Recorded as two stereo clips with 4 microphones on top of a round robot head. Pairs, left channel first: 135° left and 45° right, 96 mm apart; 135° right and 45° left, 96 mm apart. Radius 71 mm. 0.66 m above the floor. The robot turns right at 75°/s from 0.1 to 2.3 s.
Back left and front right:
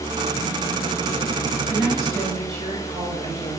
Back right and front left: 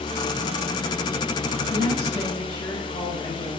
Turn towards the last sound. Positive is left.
turn(degrees=-85)